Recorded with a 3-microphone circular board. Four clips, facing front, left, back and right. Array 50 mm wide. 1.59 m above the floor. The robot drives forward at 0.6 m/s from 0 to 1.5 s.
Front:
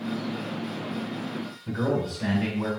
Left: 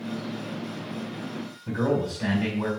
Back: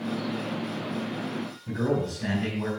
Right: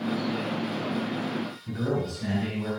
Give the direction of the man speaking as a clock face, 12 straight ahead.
10 o'clock.